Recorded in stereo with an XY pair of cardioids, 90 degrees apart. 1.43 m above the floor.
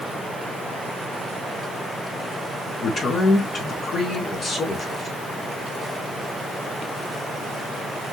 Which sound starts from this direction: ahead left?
A man speaking, at 2.8 s.